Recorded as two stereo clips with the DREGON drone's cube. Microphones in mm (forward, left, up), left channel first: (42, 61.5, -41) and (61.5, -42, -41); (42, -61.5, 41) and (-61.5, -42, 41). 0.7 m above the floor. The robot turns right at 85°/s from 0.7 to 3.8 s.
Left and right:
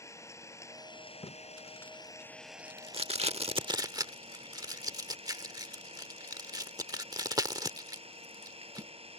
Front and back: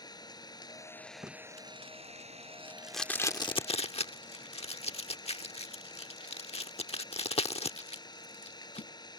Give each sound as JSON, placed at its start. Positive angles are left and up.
{"t": 0.0, "sound": "an engine running", "azimuth_deg": 40}
{"t": 1.2, "sound": "tape being pulled", "azimuth_deg": 115}